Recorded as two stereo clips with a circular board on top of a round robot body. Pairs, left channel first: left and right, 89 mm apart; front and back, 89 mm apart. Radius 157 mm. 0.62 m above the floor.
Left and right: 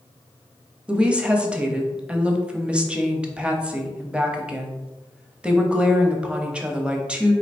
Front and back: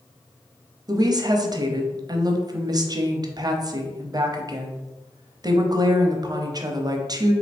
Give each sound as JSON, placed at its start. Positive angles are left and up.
{"t": 0.9, "sound": "a woman speaking", "azimuth_deg": -165, "distance_m": 0.8}